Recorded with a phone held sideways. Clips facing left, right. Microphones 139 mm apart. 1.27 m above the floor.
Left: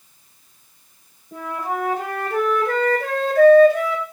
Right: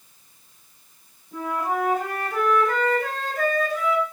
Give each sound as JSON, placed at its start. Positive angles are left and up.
{"t": 1.3, "sound": "a flute", "side_deg": 70, "distance_m": 7.5}